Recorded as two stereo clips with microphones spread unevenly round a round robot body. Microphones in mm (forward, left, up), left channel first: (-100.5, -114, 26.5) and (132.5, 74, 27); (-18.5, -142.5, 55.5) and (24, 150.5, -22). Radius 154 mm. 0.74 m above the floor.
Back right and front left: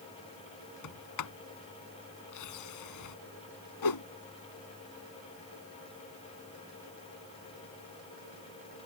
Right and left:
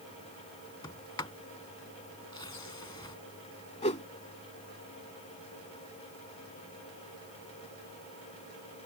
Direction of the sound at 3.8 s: 170° right.